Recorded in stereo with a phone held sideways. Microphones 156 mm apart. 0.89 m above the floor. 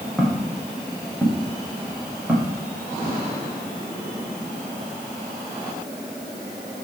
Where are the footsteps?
5° right (ahead or behind), 5.5 m; by 3.2 s 10° right (ahead or behind), 7.5 m.